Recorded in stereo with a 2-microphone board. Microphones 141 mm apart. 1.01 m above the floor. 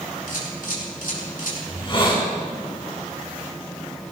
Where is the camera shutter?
80° left, 7.5 m.